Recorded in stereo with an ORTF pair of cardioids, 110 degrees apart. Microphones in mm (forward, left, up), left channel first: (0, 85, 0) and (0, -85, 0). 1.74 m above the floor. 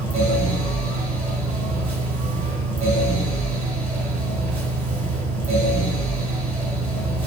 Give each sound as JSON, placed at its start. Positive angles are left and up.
{"t": 0.0, "sound": "a fan", "azimuth_deg": -45, "distance_m": 1.8}